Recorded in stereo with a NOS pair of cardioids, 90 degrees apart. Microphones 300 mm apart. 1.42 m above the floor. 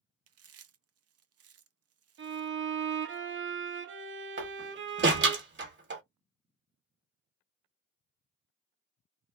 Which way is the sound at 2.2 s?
40° right.